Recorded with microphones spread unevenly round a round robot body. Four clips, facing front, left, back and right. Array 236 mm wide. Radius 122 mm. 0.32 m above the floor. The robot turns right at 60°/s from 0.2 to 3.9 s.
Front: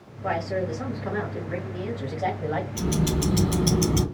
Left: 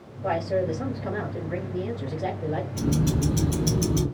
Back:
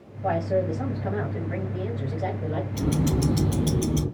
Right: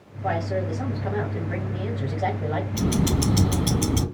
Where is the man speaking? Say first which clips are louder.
Left 1 dB, back 3 dB; 175° left, 1.7 m; by 2.6 s 40° right, 1.7 m.